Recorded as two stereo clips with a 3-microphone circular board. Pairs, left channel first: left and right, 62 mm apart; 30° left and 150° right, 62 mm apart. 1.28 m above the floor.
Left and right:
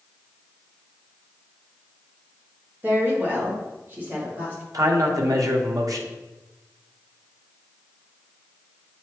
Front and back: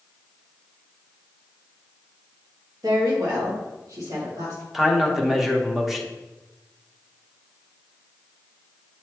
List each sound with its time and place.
2.8 s a woman speaking: 145° right, 1.7 m
4.7 s a man speaking: 65° right, 1.1 m